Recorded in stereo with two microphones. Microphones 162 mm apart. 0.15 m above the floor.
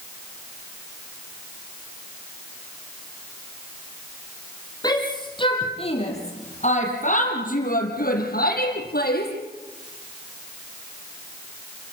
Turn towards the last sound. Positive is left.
turn(degrees=75)  # may be behind; listen again after turning